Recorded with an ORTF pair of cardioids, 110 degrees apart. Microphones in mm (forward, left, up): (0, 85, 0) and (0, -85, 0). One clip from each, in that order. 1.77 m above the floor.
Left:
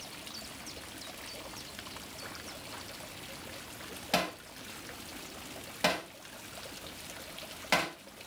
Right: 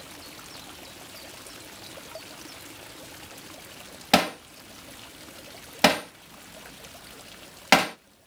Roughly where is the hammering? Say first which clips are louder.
Right 10 dB; ahead right.